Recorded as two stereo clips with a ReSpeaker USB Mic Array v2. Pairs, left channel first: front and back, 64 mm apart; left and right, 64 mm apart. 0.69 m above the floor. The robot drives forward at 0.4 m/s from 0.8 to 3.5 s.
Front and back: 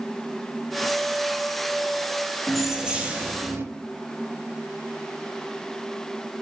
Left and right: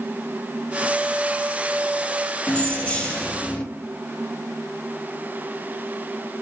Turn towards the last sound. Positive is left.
turn(degrees=155)